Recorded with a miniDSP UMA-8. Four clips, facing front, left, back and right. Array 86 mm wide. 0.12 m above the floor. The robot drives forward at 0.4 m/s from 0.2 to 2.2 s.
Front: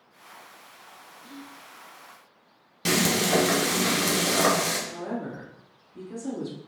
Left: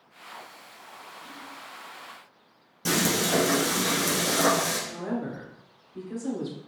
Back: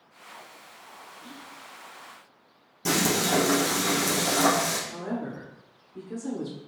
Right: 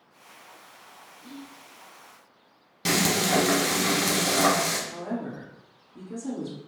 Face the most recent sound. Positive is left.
turn(degrees=110)